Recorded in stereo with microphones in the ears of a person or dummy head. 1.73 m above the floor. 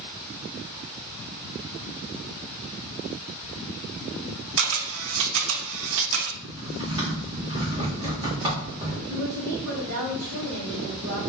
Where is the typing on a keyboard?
20° right (ahead or behind), 1.0 m.